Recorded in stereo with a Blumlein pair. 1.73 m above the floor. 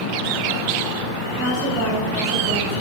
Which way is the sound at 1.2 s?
35° right.